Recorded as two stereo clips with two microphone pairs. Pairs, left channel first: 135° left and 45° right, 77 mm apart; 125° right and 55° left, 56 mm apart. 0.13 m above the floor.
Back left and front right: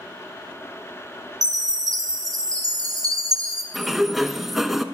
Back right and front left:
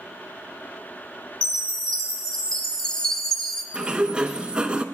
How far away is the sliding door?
About 0.6 m.